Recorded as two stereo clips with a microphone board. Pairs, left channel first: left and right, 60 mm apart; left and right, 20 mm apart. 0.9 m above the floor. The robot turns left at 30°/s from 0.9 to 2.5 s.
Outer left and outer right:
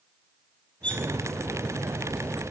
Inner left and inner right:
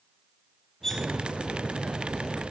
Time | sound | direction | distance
0.8 | cutlery clinking | 20° left (ahead or behind) | 2 m